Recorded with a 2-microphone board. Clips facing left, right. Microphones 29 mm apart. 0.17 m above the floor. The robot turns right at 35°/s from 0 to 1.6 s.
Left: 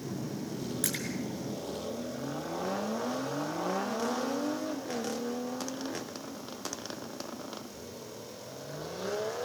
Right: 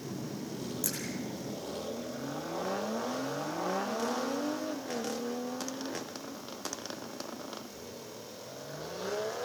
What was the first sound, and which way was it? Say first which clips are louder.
A splash: left 4 dB; 55° left (ahead or behind).